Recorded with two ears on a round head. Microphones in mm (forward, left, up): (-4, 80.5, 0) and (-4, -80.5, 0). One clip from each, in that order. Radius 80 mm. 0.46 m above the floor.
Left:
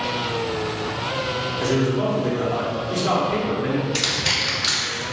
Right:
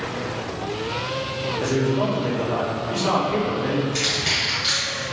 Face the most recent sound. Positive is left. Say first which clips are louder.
# left 1 dB
turn(degrees=40)  # may be behind; listen again after turning